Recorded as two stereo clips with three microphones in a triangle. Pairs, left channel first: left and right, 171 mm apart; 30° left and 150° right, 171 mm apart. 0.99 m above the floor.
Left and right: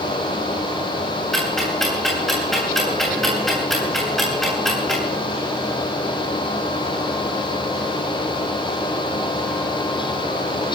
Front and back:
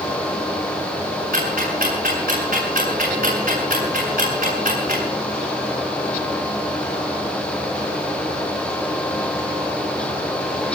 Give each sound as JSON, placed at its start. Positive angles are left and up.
{"t": 1.3, "sound": "ticking", "azimuth_deg": 180, "distance_m": 8.5}